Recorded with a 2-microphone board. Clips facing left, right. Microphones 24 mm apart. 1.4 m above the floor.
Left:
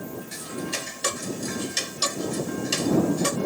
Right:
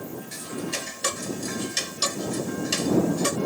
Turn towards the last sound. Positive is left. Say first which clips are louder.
# even
turn(degrees=5)  # may be behind; listen again after turning